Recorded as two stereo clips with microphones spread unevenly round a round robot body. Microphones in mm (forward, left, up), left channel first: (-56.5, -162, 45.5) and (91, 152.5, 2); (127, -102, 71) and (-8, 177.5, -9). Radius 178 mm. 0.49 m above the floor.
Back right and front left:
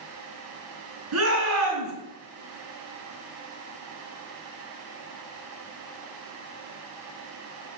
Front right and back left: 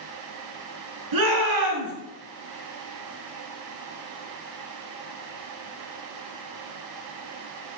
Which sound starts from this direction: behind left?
A shout, at 1.1 s.